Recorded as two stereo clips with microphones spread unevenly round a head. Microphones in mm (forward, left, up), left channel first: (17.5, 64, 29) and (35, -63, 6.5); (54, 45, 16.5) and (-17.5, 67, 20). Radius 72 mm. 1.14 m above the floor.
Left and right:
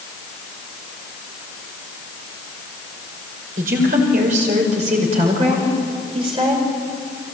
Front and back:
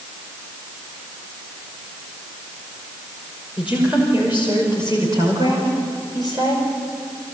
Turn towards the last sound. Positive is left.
turn(degrees=-145)